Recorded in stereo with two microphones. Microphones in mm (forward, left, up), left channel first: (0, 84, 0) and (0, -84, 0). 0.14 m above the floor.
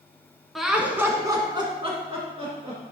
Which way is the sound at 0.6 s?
Centre (ahead or behind).